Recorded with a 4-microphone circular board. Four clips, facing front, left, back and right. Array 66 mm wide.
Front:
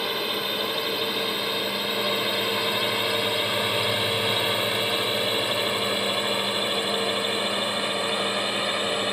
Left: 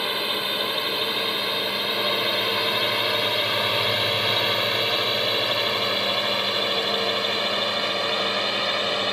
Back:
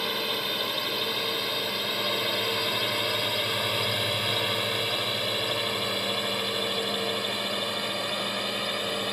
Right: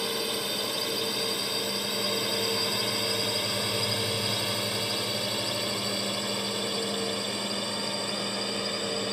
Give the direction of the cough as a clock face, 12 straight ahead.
I don't hear a cough.